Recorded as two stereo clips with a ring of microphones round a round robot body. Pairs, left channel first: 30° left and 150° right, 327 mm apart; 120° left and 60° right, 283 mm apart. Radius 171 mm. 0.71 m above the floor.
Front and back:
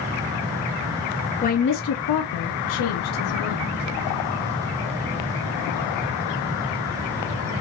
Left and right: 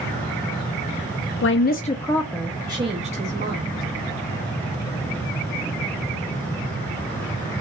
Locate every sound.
1.4 s a woman speaking: 95° left, 0.7 m; by 3.8 s straight ahead, 1.5 m